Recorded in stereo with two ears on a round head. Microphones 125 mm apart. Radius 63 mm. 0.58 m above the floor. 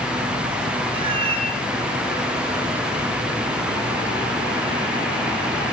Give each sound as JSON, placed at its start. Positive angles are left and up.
{"t": 0.9, "sound": "a cat meowing", "side_deg": -35, "distance_m": 5.5}